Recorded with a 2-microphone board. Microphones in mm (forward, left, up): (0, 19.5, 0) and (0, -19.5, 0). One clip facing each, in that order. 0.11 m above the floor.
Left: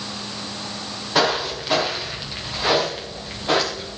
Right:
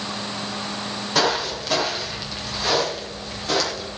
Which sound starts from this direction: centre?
Footsteps, at 1.1 s.